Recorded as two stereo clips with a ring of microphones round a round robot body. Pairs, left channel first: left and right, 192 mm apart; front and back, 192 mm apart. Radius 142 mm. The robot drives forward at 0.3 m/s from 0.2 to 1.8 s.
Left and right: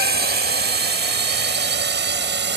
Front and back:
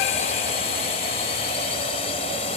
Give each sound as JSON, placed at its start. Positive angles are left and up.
{"t": 0.0, "sound": "a drone", "azimuth_deg": -60}